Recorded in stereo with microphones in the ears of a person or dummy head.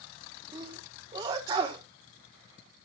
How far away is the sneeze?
About 1.4 m.